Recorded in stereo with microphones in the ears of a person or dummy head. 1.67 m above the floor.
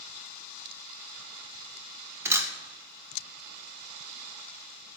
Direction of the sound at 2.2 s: 15° right (ahead or behind).